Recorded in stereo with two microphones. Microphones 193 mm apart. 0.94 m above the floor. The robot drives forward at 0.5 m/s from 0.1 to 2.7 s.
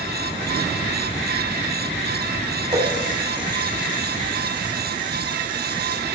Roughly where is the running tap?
Right.